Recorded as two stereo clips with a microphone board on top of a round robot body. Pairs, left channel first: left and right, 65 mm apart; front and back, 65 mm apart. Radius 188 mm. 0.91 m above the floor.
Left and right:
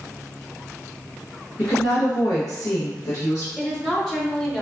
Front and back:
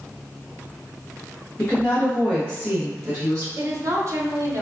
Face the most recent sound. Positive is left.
turn(degrees=165)